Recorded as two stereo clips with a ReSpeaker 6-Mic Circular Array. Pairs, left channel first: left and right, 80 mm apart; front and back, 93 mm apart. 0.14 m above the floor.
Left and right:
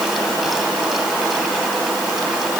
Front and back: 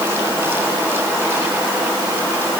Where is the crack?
No crack in this recording.